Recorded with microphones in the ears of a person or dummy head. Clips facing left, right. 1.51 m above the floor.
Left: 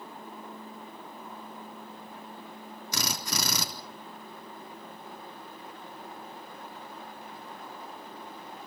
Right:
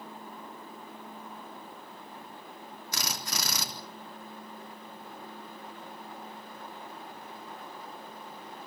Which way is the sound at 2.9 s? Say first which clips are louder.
Left 4 dB; 80° left.